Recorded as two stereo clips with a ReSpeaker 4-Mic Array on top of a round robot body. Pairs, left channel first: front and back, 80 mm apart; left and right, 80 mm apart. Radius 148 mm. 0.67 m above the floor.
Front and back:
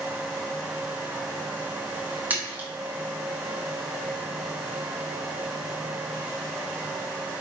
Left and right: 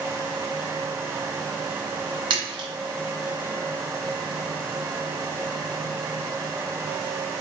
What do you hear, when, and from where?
2.3 s a splash: 110° right, 1.1 m